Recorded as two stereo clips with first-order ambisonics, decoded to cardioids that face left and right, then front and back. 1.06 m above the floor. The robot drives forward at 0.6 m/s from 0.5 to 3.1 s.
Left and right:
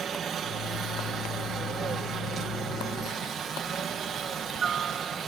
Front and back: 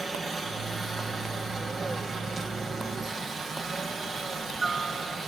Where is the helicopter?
110° right; by 5.3 s 120° right.